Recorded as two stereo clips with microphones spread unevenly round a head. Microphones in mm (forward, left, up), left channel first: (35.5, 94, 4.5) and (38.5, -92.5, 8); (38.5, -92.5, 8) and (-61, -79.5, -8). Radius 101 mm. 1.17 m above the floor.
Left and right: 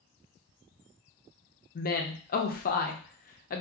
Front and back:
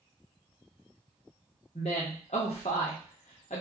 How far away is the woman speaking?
About 0.7 m.